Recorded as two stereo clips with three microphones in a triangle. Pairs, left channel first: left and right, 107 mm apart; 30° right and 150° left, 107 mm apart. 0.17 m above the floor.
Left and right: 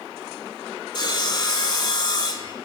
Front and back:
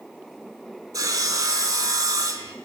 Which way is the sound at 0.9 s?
110° left.